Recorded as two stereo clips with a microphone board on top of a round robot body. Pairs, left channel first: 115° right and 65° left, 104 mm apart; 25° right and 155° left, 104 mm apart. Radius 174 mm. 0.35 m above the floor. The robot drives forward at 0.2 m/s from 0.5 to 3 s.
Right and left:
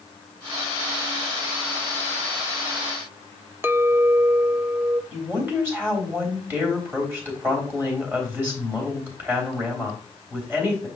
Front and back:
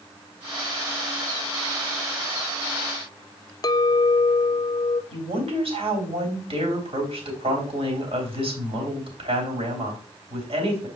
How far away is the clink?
About 0.7 m.